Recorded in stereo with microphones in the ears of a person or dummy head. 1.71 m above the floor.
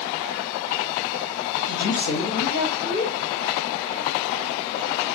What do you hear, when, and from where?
1.7 s a woman speaking: 65° left (ahead or behind), 0.7 m